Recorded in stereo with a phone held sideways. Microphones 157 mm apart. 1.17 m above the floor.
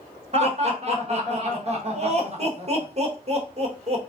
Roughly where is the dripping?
No dripping in this recording.